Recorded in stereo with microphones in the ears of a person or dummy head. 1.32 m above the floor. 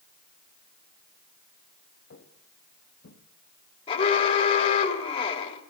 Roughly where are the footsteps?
Left.